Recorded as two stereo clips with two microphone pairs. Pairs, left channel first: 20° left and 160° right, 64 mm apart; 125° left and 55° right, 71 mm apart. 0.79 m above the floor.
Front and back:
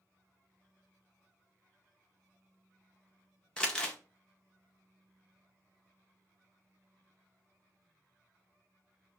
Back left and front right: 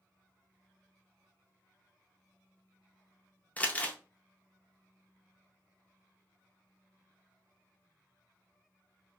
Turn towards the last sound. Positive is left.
turn(degrees=80)